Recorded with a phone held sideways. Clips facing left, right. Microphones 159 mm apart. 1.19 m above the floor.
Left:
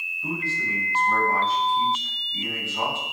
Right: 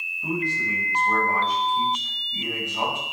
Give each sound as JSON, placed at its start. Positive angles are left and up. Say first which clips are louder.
{"t": 0.2, "sound": "a man speaking", "louder": "right 3 dB", "side_deg": -15, "distance_m": 6.0}